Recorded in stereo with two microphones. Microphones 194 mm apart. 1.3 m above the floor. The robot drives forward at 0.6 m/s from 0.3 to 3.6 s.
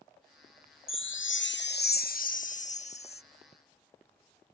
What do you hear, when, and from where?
0.9 s a chime: 85° left; by 3.2 s 30° left (ahead or behind)